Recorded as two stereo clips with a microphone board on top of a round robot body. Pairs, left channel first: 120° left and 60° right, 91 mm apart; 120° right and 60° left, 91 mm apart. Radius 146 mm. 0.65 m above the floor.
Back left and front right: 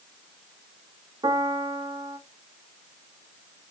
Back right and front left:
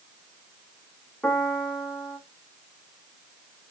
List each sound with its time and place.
1.2 s a piano: 40° right, 1.2 m